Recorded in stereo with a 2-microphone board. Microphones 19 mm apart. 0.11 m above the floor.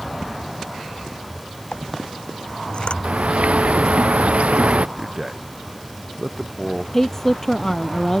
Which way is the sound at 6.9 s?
20° left (ahead or behind).